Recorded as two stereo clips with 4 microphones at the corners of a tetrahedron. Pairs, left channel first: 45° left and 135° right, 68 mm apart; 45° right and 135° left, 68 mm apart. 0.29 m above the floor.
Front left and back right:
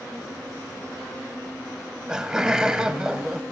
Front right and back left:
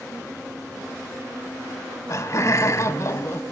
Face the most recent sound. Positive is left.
turn(degrees=-55)